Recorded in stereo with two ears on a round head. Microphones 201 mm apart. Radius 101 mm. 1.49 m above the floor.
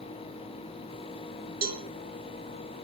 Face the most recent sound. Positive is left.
turn(degrees=-40)  # may be behind; listen again after turning